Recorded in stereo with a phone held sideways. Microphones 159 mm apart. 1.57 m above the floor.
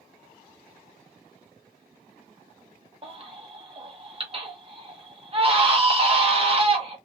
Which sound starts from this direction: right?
A baby crying, at 3.0 s.